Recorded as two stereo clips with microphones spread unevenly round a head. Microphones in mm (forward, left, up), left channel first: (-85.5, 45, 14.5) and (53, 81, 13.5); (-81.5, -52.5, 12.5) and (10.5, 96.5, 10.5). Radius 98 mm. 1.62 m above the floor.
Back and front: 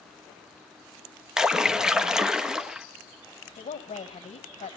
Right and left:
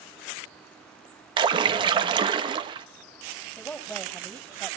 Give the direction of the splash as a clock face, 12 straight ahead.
9 o'clock.